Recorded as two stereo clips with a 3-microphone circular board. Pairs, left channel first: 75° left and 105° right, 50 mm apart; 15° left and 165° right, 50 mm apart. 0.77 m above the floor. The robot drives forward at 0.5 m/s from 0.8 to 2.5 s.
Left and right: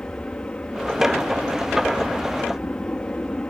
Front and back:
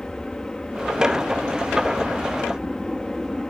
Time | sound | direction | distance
0.0 | an aircraft | 85° left | ?